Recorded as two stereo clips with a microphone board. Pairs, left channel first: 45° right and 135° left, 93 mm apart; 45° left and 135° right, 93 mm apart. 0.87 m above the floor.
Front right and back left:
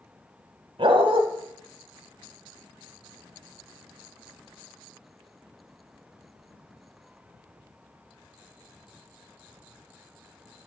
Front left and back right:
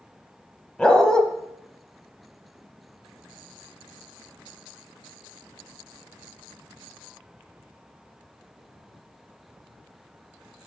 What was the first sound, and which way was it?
A dog barking, 125° left.